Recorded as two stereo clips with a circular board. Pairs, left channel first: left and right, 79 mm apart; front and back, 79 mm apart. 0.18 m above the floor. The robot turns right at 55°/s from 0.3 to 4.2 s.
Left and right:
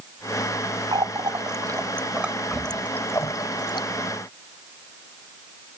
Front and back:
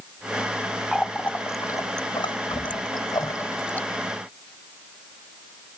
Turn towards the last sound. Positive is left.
turn(degrees=95)